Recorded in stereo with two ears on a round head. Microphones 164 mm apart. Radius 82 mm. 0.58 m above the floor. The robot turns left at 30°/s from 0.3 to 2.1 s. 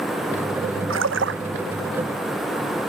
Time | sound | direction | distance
0.9 | a splash | 85° right | ?